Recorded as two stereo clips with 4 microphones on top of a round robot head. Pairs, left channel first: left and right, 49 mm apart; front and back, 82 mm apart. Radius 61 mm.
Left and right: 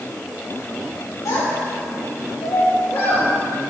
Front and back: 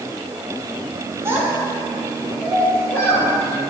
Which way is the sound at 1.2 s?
125° left.